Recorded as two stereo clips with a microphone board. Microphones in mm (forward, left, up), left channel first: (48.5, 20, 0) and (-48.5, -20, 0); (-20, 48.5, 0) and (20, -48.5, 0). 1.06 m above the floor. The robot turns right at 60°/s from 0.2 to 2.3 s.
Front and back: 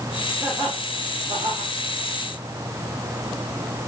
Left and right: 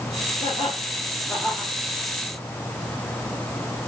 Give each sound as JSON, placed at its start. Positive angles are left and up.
{"t": 0.4, "sound": "laughter", "azimuth_deg": 140, "distance_m": 3.5}